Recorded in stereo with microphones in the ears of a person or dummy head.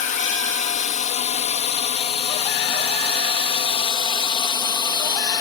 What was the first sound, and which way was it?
A drone, 40° left (ahead or behind).